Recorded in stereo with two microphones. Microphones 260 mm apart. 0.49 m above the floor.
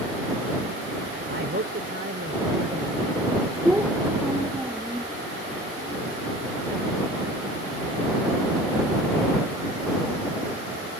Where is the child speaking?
5° right (ahead or behind).